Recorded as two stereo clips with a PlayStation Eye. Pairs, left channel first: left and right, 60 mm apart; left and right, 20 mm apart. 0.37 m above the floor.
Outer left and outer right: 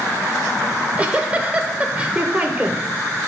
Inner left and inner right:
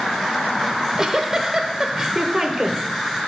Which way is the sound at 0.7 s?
20° right (ahead or behind).